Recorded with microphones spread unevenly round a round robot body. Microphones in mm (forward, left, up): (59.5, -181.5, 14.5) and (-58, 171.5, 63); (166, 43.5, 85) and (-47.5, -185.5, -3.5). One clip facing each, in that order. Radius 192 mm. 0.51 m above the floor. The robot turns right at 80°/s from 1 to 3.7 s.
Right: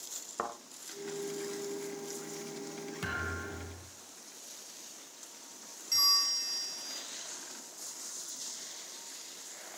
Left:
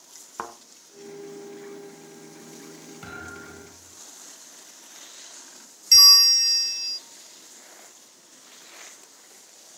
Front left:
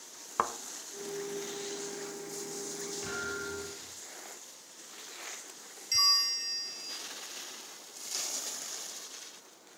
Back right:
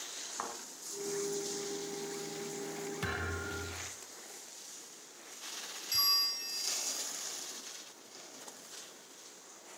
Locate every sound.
0.4 s a thud: 40° left, 1.7 m
3.0 s a thud: 130° right, 4 m; by 3.9 s 75° right, 4 m
5.9 s a bell: 120° left, 0.6 m